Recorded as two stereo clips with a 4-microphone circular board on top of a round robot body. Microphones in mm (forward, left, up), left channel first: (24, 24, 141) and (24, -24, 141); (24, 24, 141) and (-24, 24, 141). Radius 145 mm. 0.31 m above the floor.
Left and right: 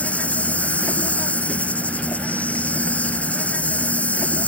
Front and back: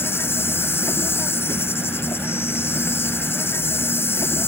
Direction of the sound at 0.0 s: 30° left.